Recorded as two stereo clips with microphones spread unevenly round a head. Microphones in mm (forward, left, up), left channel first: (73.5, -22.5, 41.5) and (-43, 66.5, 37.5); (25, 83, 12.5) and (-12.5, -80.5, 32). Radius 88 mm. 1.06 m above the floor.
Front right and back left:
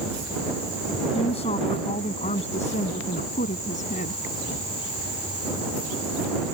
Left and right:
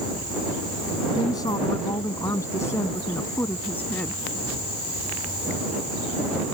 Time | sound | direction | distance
1.1 | a woman speaking | 10° left | ?